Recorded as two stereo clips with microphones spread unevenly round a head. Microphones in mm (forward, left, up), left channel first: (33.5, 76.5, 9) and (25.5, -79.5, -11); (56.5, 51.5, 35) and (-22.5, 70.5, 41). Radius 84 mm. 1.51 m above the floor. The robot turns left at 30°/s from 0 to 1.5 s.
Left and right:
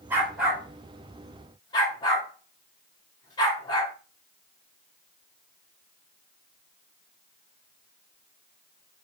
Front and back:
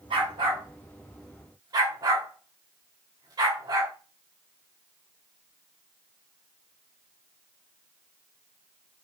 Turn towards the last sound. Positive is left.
turn(degrees=145)